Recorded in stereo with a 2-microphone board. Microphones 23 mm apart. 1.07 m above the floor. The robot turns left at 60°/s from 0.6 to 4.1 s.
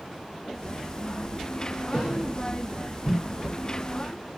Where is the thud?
40° right (ahead or behind), 6.5 m; by 2.1 s 55° right (ahead or behind), 6.5 m.